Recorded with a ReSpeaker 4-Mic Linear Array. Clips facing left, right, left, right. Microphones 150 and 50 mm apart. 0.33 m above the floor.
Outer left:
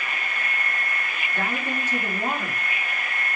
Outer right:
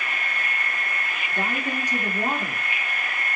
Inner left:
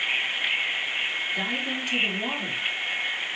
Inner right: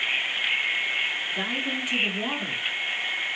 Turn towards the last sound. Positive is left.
turn(degrees=0)  # may be behind; listen again after turning